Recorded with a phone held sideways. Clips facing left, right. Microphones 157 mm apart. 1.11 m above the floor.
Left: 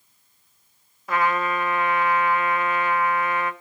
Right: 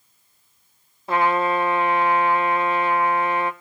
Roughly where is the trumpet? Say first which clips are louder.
Right 3 dB; right.